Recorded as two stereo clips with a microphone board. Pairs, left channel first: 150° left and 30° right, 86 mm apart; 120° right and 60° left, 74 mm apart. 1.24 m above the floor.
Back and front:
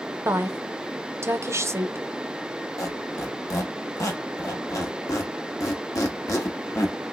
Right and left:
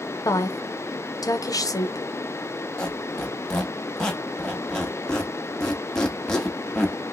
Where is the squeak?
165° left, 0.8 m.